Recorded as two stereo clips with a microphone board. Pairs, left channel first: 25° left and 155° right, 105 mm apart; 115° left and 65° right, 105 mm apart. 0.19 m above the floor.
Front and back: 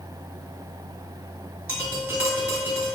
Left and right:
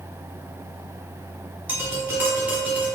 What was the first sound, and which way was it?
Tapping, 115° right.